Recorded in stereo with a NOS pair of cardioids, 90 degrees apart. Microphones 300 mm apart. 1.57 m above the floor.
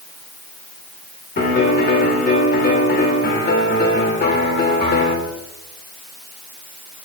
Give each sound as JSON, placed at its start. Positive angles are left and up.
{"t": 1.4, "sound": "a piano", "azimuth_deg": 35, "distance_m": 3.5}